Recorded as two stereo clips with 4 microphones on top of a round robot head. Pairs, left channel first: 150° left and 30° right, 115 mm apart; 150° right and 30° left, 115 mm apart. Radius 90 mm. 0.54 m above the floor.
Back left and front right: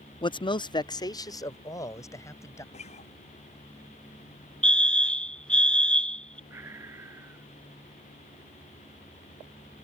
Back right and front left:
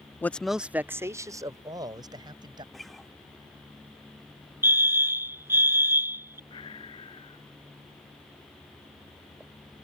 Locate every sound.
0.2 s a man speaking: 150° left; by 2.6 s 85° left
2.7 s a guitar: 120° left
4.6 s a fire alarm: 80° left
6.5 s breathing: 100° right